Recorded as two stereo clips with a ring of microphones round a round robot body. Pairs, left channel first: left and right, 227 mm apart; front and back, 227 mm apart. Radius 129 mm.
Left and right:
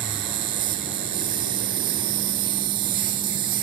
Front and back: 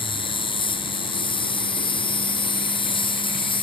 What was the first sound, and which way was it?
An insect, 70° right.